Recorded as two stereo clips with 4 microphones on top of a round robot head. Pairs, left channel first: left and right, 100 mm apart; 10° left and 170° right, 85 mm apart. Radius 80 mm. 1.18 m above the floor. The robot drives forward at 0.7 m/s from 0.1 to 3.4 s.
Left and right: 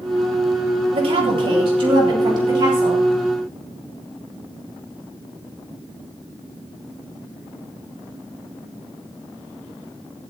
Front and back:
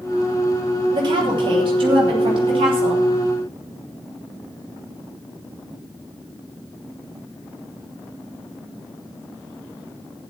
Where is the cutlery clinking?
No cutlery clinking in this recording.